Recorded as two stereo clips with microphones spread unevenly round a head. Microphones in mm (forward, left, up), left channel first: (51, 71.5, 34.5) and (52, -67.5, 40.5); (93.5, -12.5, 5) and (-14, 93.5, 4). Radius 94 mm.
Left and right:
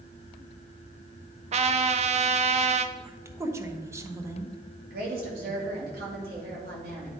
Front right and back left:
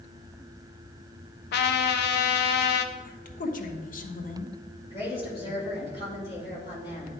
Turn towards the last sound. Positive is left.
turn(degrees=-110)